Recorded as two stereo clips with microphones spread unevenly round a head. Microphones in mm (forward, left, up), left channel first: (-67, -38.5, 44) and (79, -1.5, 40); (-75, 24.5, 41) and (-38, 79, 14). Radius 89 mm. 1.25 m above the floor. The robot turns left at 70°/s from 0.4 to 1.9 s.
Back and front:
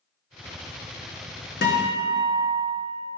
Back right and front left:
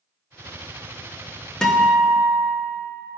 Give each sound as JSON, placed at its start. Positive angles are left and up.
{"t": 1.6, "sound": "a guitar", "azimuth_deg": 165, "distance_m": 1.1}